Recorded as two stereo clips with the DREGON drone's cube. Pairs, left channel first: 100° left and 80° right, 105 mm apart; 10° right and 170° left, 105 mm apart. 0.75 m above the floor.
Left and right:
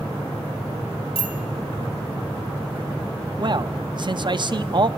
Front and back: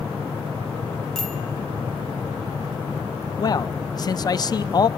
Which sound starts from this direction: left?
A bicycle bell, at 1.1 s.